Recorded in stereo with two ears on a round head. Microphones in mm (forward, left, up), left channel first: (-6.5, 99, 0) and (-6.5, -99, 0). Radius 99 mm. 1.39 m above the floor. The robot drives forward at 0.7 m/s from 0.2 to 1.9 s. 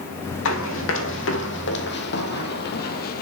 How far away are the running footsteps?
About 3.5 m.